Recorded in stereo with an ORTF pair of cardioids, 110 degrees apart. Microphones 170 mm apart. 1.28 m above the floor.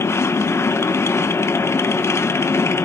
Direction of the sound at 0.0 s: 15° left.